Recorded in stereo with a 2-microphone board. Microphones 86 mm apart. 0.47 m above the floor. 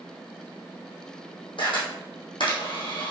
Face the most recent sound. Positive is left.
turn(degrees=70)  # may be behind; listen again after turning